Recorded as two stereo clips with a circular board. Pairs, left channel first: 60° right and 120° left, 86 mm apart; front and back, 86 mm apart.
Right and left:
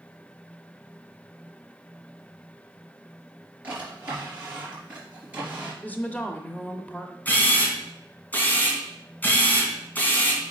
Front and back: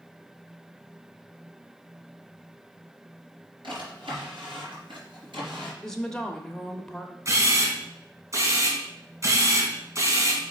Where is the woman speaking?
65° right, 0.8 m.